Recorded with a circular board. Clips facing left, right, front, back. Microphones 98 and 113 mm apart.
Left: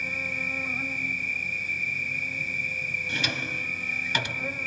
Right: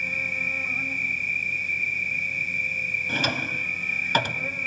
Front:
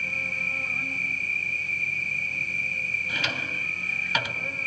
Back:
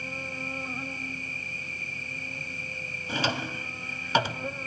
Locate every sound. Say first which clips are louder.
0.0 s an insect: right 1 dB, even; 165° left, 1.7 m
3.1 s a drawer: right 5 dB, back 5 dB; 130° right, 1.2 m